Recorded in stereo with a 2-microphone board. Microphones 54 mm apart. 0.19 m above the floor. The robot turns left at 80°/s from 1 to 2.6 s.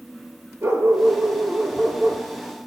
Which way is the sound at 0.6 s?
110° right.